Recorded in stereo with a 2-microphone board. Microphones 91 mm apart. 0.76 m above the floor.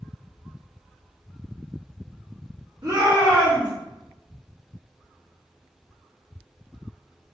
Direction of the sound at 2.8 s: 50° right (ahead or behind).